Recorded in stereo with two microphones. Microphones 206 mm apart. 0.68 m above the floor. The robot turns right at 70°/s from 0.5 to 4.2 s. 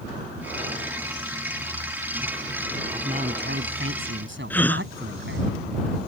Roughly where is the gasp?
Centre.